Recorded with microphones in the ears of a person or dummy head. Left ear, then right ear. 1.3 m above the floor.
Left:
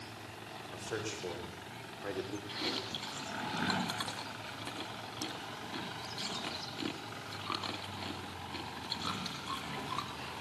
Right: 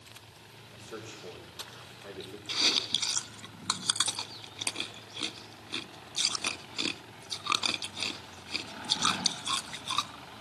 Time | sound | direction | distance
0.7 | a man speaking | 60° left (ahead or behind) | 5 m
2.5 | chewing | 45° right (ahead or behind) | 1.7 m